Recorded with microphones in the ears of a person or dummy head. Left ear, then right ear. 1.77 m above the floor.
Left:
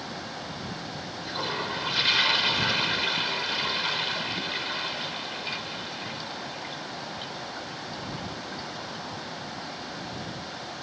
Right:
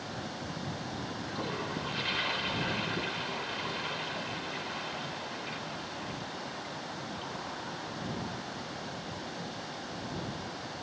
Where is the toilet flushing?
40° left (ahead or behind).